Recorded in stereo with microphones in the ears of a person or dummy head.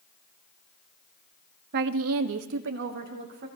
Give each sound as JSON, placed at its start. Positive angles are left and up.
{"t": 1.7, "sound": "a woman speaking", "side_deg": -50, "distance_m": 0.9}